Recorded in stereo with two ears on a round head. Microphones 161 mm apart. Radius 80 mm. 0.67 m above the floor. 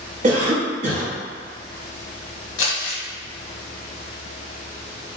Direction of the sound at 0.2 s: 40° right (ahead or behind).